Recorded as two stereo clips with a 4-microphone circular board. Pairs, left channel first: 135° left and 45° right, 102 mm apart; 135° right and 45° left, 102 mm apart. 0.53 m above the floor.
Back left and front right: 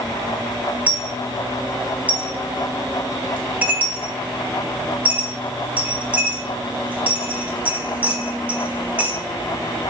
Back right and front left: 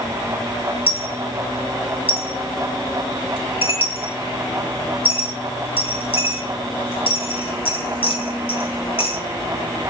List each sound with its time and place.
0.9 s a dropped coin: 120° right, 0.6 m